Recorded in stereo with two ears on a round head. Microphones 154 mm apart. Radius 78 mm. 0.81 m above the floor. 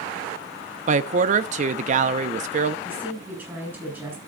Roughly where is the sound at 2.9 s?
Centre.